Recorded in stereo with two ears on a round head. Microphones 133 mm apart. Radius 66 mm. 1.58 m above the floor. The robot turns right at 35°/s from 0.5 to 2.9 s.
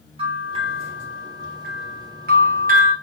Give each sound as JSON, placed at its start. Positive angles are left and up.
{"t": 0.2, "sound": "a bell", "side_deg": -40, "distance_m": 1.5}